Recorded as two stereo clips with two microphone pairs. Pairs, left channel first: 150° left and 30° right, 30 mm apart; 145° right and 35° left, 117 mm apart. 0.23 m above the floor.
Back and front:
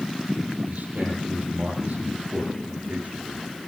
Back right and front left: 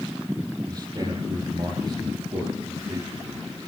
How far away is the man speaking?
About 8 m.